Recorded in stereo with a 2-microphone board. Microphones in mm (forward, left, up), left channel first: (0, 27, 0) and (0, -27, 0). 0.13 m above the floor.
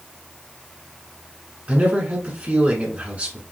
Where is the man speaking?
25° right (ahead or behind), 1.2 m.